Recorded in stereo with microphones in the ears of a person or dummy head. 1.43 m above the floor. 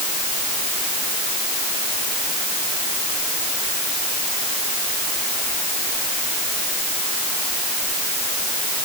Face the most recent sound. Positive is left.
No sound to turn to.